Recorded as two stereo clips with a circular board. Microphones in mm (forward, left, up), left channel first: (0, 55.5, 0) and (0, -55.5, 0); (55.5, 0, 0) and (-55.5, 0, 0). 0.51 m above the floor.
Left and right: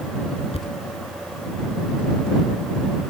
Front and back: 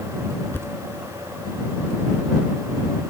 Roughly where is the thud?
Left.